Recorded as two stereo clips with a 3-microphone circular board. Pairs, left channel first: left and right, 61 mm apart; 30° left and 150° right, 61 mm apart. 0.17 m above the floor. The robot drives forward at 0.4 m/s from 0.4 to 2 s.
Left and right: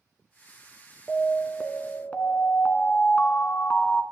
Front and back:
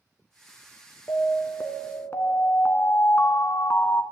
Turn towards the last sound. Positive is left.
turn(degrees=35)